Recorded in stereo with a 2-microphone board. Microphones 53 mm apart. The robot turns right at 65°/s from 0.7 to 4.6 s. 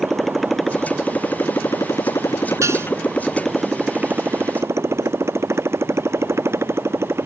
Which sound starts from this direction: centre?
A motorcycle, at 0.0 s.